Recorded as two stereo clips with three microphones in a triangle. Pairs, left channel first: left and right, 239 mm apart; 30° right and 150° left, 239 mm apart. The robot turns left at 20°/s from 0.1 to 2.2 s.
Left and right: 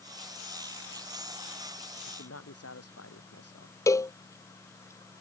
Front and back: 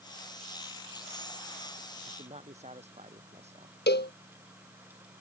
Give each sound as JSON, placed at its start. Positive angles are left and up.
{"t": 2.1, "sound": "a man speaking", "azimuth_deg": 90}
{"t": 3.9, "sound": "a cowbell", "azimuth_deg": 10}